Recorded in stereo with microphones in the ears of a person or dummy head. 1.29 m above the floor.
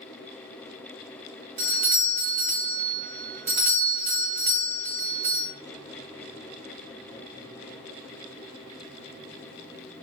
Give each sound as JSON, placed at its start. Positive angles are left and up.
{"t": 1.6, "sound": "a doorbell", "side_deg": -35, "distance_m": 0.8}